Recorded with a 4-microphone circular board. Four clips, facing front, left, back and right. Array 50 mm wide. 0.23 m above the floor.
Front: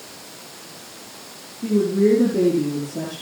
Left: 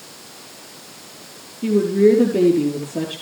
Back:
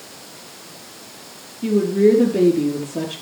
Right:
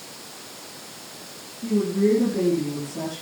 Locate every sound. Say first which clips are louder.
1.6 s a woman speaking: left 7 dB, back 2 dB; 120° left, 5.5 m